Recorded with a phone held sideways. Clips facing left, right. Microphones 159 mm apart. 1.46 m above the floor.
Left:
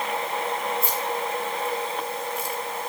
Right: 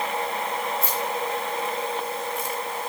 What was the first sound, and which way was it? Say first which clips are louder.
Keys jangling: even; 40° right (ahead or behind).